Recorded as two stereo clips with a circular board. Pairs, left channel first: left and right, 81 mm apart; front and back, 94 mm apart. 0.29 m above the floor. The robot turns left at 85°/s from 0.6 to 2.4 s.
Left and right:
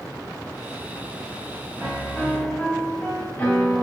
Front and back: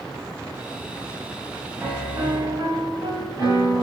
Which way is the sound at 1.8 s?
155° right.